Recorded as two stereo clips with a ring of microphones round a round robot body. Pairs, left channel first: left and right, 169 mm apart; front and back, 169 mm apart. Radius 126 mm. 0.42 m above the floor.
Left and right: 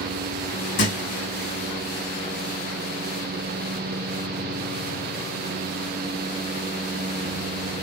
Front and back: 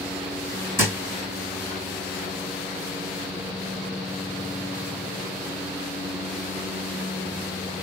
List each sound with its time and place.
0.8 s a thud: 105° left, 3 m